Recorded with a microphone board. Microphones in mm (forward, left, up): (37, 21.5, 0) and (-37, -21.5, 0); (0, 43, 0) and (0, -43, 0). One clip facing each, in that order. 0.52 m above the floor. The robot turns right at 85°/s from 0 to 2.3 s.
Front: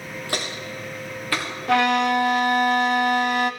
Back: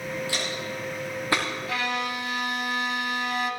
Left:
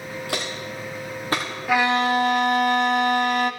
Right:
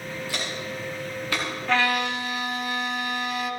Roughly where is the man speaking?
I don't hear a man speaking.